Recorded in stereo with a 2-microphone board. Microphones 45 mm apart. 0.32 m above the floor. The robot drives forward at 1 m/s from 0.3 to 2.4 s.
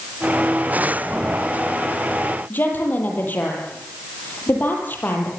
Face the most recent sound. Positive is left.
turn(degrees=45)  # may be behind; listen again after turning